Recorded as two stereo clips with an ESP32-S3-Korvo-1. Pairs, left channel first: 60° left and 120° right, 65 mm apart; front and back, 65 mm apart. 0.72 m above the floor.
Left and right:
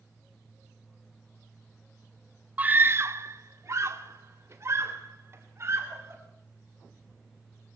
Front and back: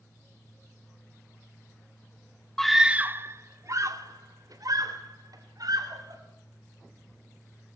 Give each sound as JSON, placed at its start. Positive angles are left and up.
{"t": 2.6, "sound": "a scream", "azimuth_deg": -75, "distance_m": 1.0}